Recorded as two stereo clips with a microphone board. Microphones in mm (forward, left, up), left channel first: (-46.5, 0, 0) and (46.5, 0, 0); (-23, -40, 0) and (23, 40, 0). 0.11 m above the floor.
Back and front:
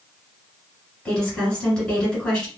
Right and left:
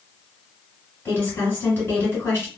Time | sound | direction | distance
1.1 | a woman speaking | 115° right | 1.7 m